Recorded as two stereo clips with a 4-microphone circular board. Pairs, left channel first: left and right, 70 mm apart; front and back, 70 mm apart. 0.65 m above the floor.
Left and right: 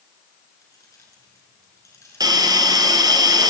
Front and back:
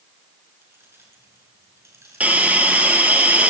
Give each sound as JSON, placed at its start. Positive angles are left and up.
{"t": 0.6, "sound": "keys jangling", "azimuth_deg": 125, "distance_m": 6.5}
{"t": 2.2, "sound": "a hiss", "azimuth_deg": -110, "distance_m": 2.5}